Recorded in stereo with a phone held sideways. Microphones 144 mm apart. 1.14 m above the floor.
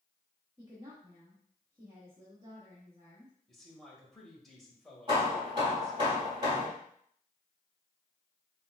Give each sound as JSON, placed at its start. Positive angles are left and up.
{"t": 0.6, "sound": "a woman speaking", "side_deg": -25, "distance_m": 1.1}
{"t": 3.5, "sound": "a man speaking", "side_deg": 5, "distance_m": 1.4}
{"t": 5.1, "sound": "hammering", "side_deg": -30, "distance_m": 2.5}